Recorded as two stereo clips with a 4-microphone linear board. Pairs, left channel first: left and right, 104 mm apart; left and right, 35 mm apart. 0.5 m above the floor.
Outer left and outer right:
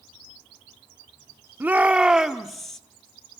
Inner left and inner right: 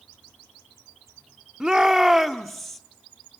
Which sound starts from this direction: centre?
A shout, at 1.6 s.